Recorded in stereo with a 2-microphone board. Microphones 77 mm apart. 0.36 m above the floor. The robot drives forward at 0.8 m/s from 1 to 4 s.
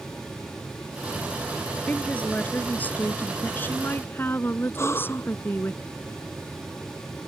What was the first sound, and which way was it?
A woman speaking, 20° left (ahead or behind).